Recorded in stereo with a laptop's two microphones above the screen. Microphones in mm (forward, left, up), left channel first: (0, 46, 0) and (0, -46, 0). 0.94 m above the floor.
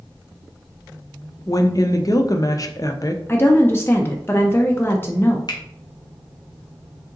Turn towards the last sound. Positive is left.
turn(degrees=50)  # may be behind; listen again after turning